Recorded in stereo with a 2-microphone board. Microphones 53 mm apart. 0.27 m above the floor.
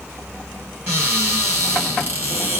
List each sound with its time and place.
0.9 s a cupboard door: 35° right (ahead or behind), 3 m